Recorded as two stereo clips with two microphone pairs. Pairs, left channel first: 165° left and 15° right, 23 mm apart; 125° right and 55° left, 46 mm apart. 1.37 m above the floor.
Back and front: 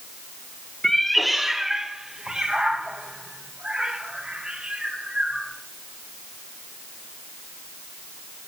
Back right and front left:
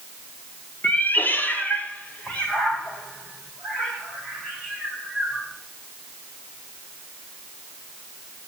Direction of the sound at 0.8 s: 120° right.